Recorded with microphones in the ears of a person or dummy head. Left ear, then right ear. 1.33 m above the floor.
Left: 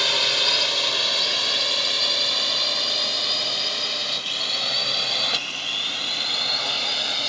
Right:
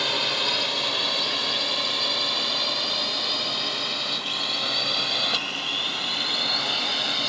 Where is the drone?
20° left (ahead or behind); by 7.3 s 5° left (ahead or behind).